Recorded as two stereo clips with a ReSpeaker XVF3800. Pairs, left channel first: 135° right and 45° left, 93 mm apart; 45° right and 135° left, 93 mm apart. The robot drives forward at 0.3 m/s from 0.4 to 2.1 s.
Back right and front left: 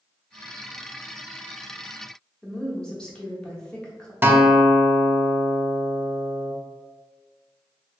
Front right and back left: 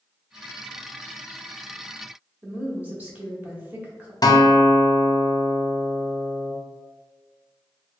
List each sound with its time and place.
2.4 s a woman speaking: 165° left, 0.8 m
4.2 s a guitar: 20° right, 0.5 m